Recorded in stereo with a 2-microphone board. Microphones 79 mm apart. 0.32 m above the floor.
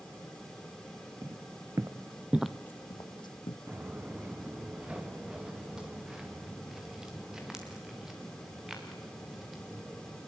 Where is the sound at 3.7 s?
25° right (ahead or behind), 1.6 m; by 10.2 s 5° right (ahead or behind), 7 m.